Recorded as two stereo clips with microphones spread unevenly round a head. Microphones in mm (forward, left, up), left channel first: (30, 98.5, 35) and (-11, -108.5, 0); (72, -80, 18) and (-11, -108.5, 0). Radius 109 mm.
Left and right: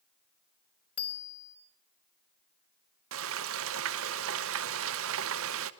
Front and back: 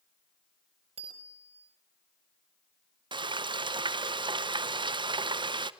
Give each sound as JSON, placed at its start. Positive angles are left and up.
{"t": 1.0, "sound": "a bicycle bell", "azimuth_deg": 160, "distance_m": 4.0}
{"t": 3.1, "sound": "frying", "azimuth_deg": -130, "distance_m": 0.8}